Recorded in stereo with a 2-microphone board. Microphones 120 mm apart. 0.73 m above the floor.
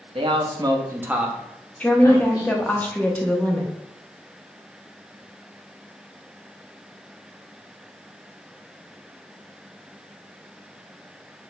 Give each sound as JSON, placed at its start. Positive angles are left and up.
{"t": 0.1, "sound": "a man speaking", "side_deg": -50, "distance_m": 0.8}
{"t": 1.8, "sound": "a woman speaking", "side_deg": 15, "distance_m": 0.7}